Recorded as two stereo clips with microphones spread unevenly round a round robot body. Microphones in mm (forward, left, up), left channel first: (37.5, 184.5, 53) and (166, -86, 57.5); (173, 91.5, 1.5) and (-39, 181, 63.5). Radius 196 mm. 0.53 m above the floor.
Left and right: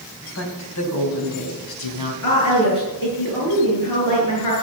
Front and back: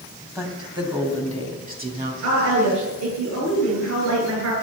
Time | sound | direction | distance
0.3 | a woman speaking | 75° left | 3.5 m
2.2 | a woman speaking | 165° left | 8 m